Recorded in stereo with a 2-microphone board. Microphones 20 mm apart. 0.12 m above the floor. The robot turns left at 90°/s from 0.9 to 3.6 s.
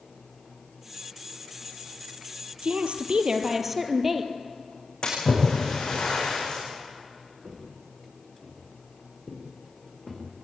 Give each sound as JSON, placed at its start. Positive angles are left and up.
{"t": 2.6, "sound": "a woman speaking", "azimuth_deg": -75, "distance_m": 2.5}
{"t": 5.0, "sound": "a splash", "side_deg": 45, "distance_m": 9.5}
{"t": 7.4, "sound": "footsteps", "side_deg": -10, "distance_m": 6.0}